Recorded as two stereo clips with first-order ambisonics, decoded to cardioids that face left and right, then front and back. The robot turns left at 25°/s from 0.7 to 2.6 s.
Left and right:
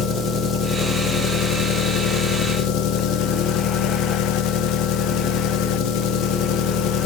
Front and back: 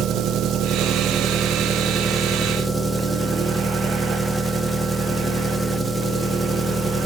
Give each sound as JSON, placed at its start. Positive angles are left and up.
{"t": 0.0, "sound": "an engine running", "azimuth_deg": 140, "distance_m": 1.0}